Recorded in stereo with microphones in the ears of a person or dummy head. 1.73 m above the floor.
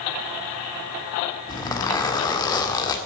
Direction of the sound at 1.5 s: 20° left (ahead or behind).